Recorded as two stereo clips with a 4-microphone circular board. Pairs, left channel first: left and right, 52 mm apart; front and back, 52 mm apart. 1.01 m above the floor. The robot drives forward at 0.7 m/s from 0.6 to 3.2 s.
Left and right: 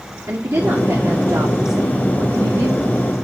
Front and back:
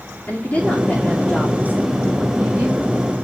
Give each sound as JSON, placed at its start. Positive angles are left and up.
{"t": 0.3, "sound": "a woman speaking", "azimuth_deg": -60, "distance_m": 2.0}